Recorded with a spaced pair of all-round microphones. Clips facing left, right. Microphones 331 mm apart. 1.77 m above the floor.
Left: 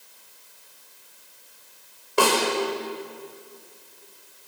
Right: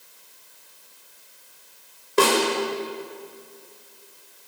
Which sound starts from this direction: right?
A snare drum, at 2.2 s.